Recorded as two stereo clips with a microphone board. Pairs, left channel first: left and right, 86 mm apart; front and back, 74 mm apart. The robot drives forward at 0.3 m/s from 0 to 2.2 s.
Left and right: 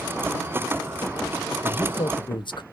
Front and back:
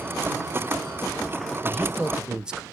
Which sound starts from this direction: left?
A man speaking, at 1.6 s.